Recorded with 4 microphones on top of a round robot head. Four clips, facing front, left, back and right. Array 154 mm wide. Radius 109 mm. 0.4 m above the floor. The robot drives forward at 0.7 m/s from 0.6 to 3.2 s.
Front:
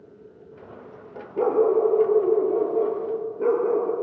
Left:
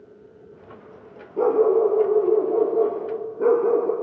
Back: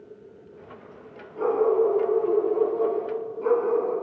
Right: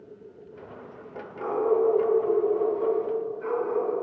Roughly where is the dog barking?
Ahead left.